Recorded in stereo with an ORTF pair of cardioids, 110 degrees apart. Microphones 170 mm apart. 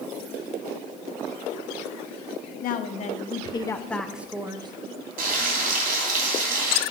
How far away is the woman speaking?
About 1.3 m.